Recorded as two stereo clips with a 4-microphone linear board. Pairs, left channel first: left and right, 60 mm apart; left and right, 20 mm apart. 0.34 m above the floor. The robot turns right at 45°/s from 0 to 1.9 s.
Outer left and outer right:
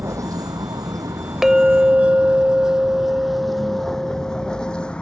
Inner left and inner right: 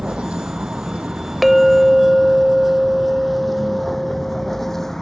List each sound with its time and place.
0.0 s a vehicle: 50° right (ahead or behind); by 5.0 s 20° left (ahead or behind)
1.4 s a clink: 10° right (ahead or behind); by 4.9 s 20° right (ahead or behind)